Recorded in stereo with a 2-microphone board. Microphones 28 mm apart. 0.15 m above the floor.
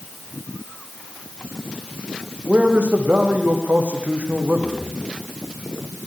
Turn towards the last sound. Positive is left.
turn(degrees=-70)  # may be behind; listen again after turning